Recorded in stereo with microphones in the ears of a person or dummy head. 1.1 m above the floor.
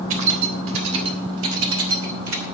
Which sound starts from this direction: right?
Keys jangling, at 0.1 s.